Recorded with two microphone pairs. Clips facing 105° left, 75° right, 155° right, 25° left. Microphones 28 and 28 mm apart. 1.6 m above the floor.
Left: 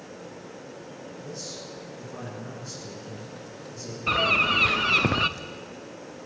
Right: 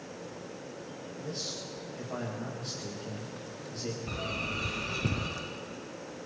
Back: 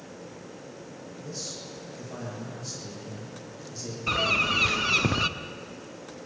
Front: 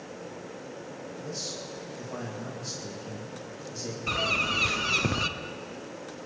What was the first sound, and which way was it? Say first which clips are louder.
A man speaking: right 1 dB, front 1 dB; 55° right.